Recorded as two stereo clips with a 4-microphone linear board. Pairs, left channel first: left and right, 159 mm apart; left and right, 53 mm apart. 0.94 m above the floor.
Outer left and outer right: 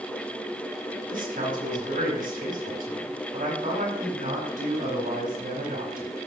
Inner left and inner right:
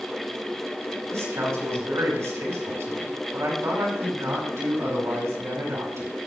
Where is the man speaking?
65° right (ahead or behind), 5 m.